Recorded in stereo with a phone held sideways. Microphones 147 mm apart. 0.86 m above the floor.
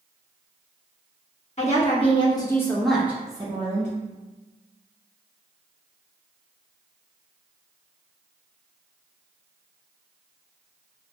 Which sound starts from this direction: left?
A woman speaking, at 1.6 s.